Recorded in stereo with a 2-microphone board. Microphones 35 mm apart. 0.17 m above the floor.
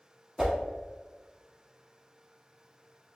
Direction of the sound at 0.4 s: 15° right (ahead or behind).